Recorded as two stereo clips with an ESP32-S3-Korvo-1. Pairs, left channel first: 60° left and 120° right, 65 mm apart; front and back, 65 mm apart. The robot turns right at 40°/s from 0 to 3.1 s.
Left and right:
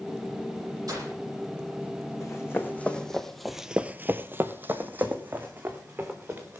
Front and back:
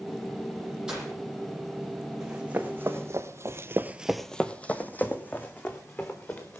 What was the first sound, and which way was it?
Breaking glass, 105° right.